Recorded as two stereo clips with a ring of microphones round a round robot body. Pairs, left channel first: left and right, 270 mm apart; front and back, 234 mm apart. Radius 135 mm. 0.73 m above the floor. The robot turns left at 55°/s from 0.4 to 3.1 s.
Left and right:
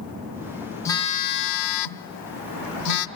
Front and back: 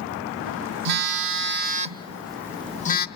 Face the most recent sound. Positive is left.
turn(degrees=45)